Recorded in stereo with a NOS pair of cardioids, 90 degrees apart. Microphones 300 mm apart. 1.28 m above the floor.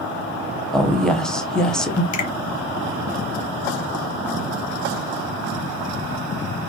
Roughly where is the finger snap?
Left.